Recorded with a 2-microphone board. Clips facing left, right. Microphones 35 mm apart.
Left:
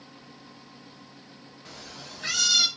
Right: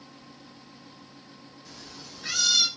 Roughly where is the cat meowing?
Left.